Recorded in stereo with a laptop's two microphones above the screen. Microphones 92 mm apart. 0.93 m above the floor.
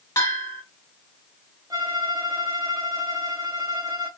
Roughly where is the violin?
Right.